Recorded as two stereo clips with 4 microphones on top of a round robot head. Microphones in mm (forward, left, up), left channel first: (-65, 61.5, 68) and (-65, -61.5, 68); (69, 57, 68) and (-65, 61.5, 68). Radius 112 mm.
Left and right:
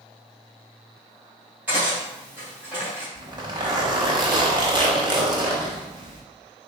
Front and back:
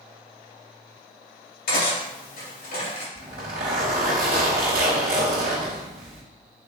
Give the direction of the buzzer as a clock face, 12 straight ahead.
No buzzer in this recording.